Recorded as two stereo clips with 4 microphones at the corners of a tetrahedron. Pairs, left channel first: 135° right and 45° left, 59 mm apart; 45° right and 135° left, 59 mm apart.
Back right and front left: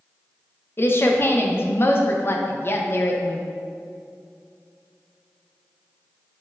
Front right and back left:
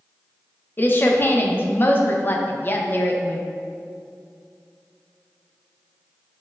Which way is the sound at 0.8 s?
95° right.